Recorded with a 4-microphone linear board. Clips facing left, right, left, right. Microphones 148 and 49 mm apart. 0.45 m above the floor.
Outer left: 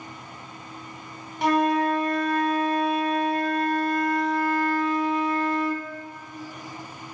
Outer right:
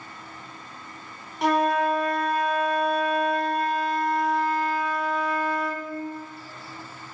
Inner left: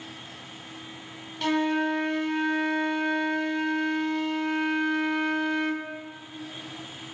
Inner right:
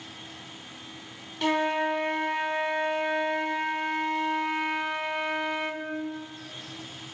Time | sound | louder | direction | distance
1.4 | a flute | outer left 1 dB, even | centre (ahead or behind) | 0.6 m